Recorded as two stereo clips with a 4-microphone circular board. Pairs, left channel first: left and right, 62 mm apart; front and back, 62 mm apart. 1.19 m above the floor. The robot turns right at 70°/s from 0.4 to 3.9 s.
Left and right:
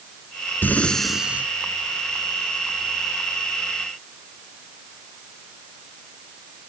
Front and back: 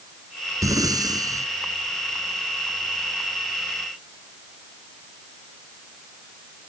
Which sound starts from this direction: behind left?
Breathing, at 0.6 s.